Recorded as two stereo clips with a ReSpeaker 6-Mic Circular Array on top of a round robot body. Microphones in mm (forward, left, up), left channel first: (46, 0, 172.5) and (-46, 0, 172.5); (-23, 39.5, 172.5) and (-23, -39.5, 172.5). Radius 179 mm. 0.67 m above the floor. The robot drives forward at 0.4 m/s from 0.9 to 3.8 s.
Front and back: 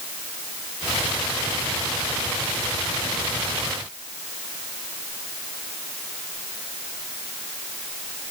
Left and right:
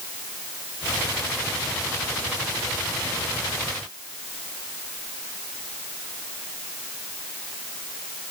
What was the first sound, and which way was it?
Only background noise.